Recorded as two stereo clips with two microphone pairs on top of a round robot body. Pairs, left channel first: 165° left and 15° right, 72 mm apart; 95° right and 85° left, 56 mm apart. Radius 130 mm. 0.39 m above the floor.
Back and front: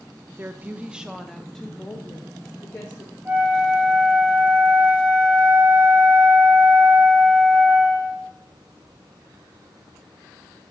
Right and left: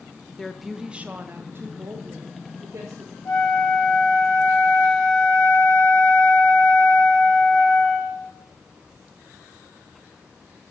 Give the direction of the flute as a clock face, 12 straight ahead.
3 o'clock.